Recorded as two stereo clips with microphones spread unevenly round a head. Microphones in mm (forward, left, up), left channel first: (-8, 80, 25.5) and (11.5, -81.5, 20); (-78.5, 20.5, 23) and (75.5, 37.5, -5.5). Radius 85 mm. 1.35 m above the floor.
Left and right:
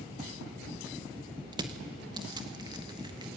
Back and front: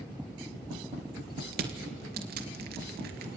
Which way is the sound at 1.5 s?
20° right.